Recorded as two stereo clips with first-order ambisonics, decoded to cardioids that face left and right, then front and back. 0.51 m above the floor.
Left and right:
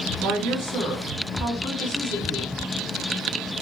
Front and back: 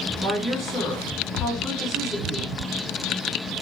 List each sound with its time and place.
0.2 s a woman speaking: 95° right, 1.4 m